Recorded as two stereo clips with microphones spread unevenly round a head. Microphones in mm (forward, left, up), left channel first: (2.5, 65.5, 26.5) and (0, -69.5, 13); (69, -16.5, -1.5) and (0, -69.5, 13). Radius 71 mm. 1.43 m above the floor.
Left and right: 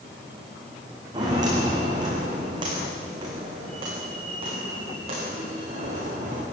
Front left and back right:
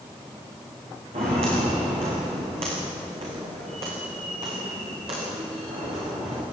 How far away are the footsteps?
About 6.5 m.